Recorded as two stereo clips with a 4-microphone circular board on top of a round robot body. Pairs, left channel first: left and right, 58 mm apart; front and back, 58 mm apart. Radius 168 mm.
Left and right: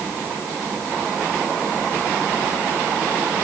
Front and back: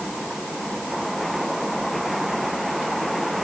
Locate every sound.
Only background noise.